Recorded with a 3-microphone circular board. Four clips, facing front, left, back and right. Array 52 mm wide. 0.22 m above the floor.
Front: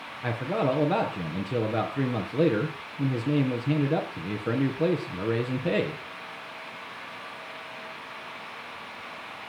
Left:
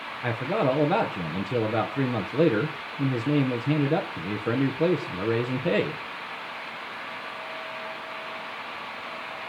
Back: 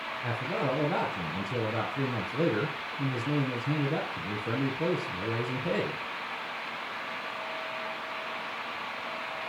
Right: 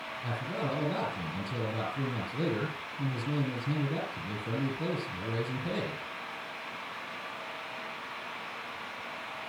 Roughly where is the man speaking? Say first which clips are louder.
Left 10 dB, front 5 dB; ahead left.